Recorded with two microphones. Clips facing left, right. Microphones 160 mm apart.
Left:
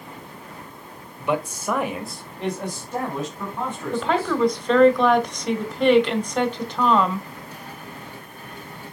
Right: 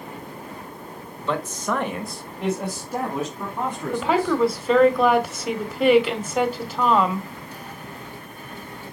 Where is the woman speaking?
5° right (ahead or behind), 1.3 m.